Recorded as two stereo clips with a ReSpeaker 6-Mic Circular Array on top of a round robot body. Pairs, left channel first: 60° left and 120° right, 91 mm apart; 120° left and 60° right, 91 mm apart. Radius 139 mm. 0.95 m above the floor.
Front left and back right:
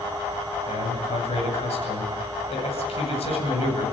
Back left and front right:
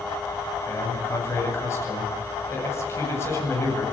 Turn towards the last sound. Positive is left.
turn(degrees=60)